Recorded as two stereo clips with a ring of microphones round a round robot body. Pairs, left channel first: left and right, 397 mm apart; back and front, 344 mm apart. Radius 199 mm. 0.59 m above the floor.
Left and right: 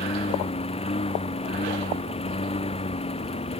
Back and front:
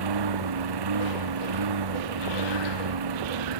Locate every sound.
0.0 s a lawn mower: 15° left